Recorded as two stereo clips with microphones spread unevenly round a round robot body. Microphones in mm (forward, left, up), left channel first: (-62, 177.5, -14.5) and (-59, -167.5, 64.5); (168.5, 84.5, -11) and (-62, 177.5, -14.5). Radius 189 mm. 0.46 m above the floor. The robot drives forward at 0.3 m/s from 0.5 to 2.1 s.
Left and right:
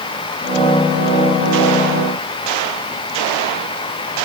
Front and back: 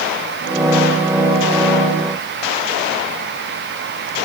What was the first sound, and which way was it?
Only background noise.